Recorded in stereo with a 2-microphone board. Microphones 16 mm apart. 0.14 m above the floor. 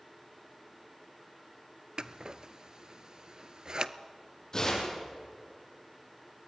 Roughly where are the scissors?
Right.